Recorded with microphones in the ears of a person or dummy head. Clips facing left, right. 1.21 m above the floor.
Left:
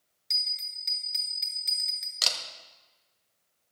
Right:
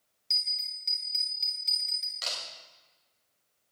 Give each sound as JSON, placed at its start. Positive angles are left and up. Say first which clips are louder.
{"t": 0.3, "sound": "a bell", "louder": "even", "side_deg": 20, "distance_m": 1.2}
{"t": 2.2, "sound": "a camera shutter", "louder": "left 3 dB", "side_deg": 65, "distance_m": 1.9}